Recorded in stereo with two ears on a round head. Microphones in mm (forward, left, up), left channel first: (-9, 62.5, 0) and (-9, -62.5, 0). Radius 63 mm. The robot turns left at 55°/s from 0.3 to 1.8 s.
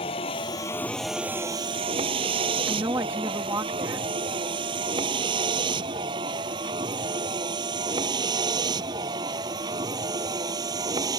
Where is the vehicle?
40° left (ahead or behind); by 11.2 s 25° right (ahead or behind).